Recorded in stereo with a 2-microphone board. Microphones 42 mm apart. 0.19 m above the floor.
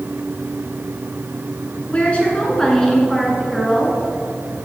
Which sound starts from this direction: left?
A woman speaking, at 1.9 s.